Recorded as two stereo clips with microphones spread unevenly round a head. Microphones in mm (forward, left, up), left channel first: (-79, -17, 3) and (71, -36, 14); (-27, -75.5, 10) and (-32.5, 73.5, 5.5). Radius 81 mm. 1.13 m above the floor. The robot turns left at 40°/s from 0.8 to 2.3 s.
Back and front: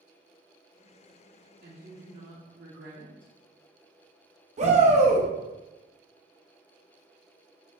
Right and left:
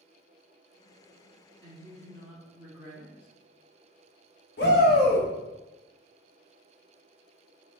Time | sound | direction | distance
1.6 | a woman speaking | 40° left | 1.7 m
4.6 | a shout | 55° right | 1.1 m